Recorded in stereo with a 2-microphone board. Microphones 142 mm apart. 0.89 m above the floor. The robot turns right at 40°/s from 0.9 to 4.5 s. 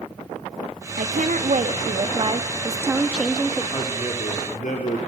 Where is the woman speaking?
95° right, 1.9 m; by 3.6 s 10° left, 1.9 m.